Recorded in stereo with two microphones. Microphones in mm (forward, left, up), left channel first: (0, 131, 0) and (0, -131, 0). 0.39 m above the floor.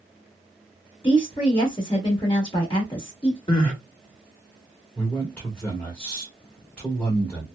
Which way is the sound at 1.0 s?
20° left (ahead or behind).